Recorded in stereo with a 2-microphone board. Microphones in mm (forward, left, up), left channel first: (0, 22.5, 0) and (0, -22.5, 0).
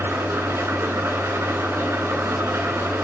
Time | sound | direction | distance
0.0 | an engine running | 75° right (ahead or behind) | 4 m